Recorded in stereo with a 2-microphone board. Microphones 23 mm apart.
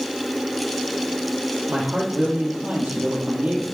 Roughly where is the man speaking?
Right.